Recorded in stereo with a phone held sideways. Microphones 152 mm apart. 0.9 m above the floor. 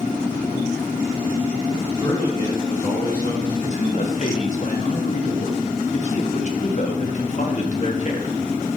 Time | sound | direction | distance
1.8 | a man speaking | 65° left (ahead or behind) | 4 m
3.6 | a man speaking | 50° left (ahead or behind) | 1.2 m